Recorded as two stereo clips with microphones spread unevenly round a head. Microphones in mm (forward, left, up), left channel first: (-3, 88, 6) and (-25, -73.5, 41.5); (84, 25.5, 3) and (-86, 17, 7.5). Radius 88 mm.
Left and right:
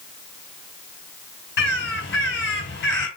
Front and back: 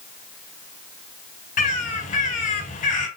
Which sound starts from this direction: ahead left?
A bird, at 1.6 s.